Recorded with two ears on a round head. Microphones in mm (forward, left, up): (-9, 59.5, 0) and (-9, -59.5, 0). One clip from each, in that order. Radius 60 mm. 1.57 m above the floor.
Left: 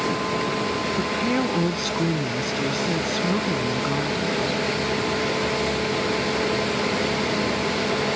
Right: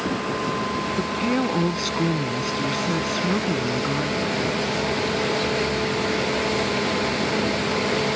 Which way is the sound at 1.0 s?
Centre (ahead or behind).